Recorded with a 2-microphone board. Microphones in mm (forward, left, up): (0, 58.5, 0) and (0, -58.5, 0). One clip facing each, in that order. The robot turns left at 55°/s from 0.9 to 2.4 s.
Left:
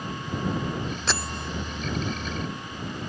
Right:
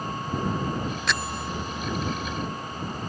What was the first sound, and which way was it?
A bell, 30° left (ahead or behind).